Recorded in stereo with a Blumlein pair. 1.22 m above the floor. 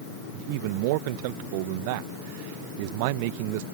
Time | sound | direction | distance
0.3 | a man speaking | 45° right | ?